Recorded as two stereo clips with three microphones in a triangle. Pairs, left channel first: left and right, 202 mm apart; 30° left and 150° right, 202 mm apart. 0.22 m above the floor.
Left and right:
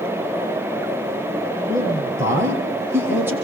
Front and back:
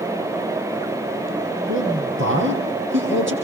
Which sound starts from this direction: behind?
A man speaking, at 1.7 s.